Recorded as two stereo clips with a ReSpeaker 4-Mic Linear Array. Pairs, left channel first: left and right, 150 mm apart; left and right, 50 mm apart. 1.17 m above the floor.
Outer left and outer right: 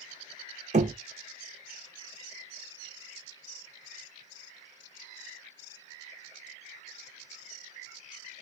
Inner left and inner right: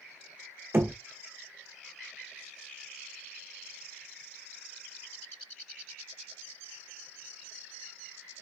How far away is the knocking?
About 0.6 m.